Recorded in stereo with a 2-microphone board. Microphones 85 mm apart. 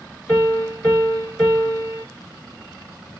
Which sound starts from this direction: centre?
A piano, at 0.3 s.